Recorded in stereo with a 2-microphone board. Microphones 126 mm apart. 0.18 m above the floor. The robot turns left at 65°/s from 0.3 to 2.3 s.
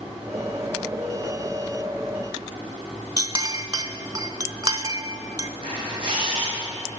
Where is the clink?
35° right (ahead or behind), 0.8 m.